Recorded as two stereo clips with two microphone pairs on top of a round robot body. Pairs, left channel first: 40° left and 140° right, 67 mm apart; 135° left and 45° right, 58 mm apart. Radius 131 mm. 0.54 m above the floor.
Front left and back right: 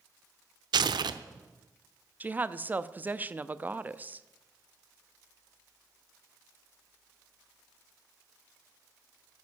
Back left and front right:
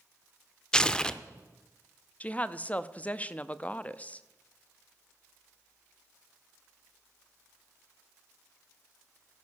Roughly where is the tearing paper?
Behind right.